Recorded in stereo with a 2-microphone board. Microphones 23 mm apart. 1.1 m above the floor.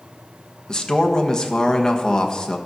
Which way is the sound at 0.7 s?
30° left (ahead or behind).